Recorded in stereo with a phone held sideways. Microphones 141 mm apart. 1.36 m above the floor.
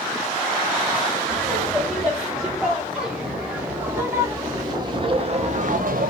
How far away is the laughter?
About 4 m.